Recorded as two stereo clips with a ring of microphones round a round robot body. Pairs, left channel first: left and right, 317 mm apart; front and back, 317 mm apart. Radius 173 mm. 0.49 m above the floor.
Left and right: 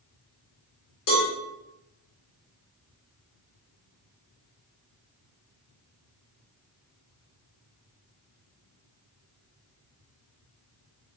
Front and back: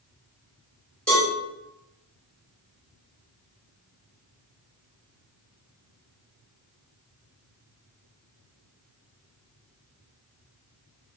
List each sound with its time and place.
1.1 s a cowbell: 85° left, 1.6 m